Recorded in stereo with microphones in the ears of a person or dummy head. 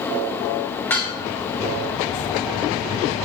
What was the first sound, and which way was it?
Dishes clattering, 15° left (ahead or behind).